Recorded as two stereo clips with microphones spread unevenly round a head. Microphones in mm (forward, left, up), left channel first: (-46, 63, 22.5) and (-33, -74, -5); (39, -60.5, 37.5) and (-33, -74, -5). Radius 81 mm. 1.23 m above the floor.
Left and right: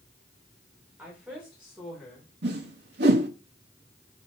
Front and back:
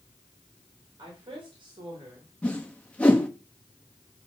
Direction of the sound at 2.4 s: 60° right.